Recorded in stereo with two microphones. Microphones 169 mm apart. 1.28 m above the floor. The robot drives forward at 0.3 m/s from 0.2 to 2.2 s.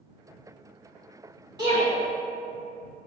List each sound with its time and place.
1.6 s a shout: 25° right (ahead or behind), 1.8 m